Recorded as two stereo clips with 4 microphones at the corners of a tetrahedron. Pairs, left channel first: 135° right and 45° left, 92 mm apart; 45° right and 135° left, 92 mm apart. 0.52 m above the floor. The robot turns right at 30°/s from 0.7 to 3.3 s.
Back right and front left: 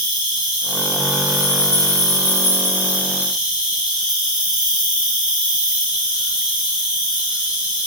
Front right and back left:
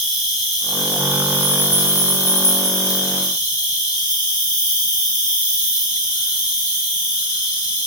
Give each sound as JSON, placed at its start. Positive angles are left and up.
{"t": 0.0, "sound": "an insect", "azimuth_deg": 45, "distance_m": 0.8}